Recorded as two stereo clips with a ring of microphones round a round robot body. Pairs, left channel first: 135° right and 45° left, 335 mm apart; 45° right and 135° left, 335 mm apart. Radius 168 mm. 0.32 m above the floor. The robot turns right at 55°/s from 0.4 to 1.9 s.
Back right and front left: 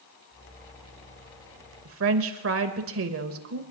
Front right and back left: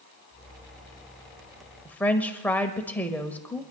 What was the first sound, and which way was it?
A woman speaking, 35° left.